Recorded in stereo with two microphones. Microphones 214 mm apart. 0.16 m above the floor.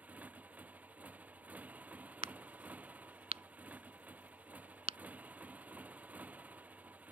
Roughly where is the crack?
Right.